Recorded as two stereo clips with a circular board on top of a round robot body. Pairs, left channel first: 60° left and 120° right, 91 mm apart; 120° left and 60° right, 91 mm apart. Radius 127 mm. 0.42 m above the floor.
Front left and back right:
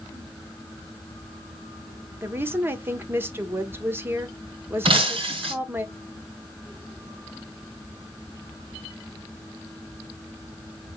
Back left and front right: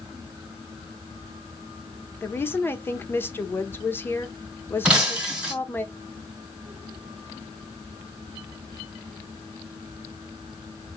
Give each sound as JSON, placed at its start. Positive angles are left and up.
{"t": 2.2, "sound": "a woman speaking", "azimuth_deg": 180, "distance_m": 1.2}
{"t": 4.8, "sound": "breaking glass", "azimuth_deg": -140, "distance_m": 2.0}